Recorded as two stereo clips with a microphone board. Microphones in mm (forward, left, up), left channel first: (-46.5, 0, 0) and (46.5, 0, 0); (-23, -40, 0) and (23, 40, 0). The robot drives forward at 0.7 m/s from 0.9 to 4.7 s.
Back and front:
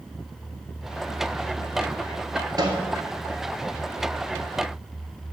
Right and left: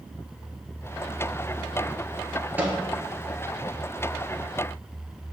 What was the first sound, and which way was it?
A microwave, straight ahead.